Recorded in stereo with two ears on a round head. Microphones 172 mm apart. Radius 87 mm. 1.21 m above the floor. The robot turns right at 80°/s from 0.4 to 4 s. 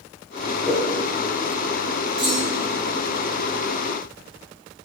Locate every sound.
0.7 s a whoosh: centre (ahead or behind), 3 m; by 0.9 s 15° right (ahead or behind), 3 m
2.2 s a clunk: 30° right, 3.5 m; by 2.7 s 10° left, 3.5 m